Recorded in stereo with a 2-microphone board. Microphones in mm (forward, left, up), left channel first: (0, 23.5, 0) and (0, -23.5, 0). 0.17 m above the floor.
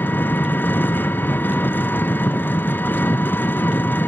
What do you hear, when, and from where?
0.0 s an engine running: 45° left (ahead or behind), 0.8 m